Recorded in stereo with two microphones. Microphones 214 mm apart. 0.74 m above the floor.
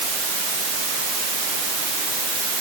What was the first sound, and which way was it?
Only background noise.